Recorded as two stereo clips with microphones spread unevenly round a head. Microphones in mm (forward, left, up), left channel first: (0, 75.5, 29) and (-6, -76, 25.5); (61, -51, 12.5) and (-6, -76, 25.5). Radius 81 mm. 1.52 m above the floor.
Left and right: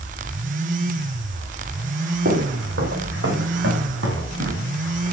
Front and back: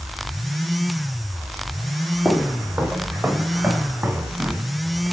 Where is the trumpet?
I don't hear a trumpet.